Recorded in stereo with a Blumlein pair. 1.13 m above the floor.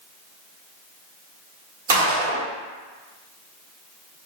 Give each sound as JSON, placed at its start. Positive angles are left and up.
{"t": 1.9, "sound": "a gunshot", "azimuth_deg": -60, "distance_m": 1.8}